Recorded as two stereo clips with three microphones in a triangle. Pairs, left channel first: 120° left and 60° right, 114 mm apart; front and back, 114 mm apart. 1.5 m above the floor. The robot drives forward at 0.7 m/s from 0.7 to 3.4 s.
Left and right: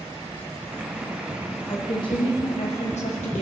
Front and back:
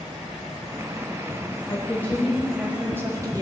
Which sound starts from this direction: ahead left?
A woman speaking, at 1.7 s.